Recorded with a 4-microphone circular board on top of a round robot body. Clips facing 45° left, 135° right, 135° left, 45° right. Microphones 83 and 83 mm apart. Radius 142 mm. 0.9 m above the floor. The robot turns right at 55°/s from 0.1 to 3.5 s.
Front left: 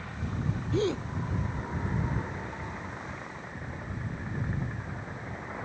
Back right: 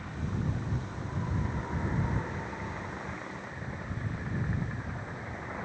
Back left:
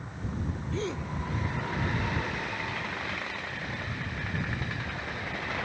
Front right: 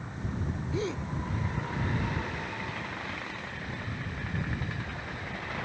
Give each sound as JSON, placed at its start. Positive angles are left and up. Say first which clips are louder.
{"t": 0.7, "sound": "a gasp", "louder": "front left 11 dB, front right 1 dB", "azimuth_deg": 35}